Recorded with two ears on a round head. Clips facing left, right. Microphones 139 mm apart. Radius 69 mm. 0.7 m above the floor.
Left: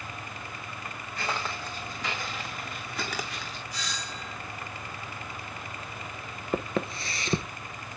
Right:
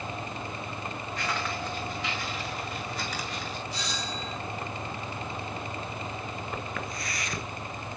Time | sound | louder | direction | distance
1.2 | footsteps | even | 25° left (ahead or behind) | 3.5 m
3.7 | a doorbell | right 4 dB | 25° right (ahead or behind) | 4 m
6.5 | footsteps | left 5 dB | 25° left (ahead or behind) | 0.8 m